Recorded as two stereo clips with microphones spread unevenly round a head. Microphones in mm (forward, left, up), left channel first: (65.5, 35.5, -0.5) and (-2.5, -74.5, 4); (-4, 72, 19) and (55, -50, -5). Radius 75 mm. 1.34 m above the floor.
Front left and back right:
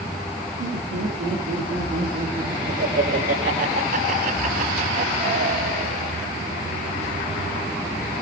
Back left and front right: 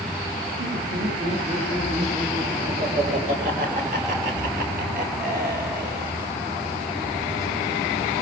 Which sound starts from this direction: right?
Laughter, at 0.6 s.